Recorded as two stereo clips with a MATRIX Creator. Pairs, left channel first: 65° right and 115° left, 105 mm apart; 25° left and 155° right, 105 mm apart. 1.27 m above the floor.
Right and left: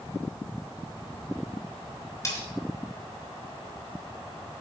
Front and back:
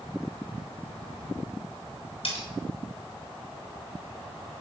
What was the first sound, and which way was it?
Cutlery clinking, 5° right.